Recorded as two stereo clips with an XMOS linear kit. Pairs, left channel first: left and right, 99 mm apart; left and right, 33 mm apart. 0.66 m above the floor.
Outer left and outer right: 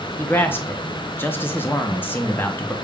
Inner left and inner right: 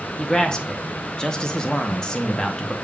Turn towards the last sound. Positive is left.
turn(degrees=20)  # may be behind; listen again after turning